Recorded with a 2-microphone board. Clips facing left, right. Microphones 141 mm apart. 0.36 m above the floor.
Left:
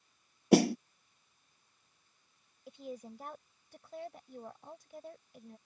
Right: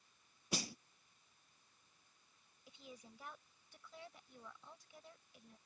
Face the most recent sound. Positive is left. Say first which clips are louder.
# left 13 dB
turn(degrees=50)  # may be behind; listen again after turning